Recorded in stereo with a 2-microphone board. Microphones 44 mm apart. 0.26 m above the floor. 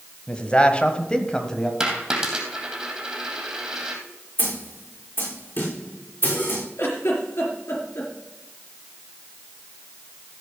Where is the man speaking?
20° left (ahead or behind), 1.3 m; by 1.7 s 10° left (ahead or behind), 1.5 m.